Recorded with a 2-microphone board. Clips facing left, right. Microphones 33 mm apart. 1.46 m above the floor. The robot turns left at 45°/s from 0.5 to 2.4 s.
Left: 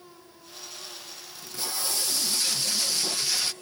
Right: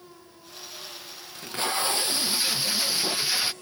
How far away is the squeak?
I don't hear a squeak.